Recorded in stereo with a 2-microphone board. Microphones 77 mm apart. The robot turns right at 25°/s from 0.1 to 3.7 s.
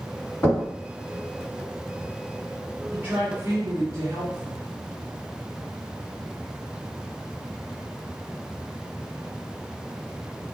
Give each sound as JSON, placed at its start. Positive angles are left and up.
{"t": 0.4, "sound": "knocking", "side_deg": 25, "distance_m": 1.4}
{"t": 2.9, "sound": "a woman speaking", "side_deg": -25, "distance_m": 1.5}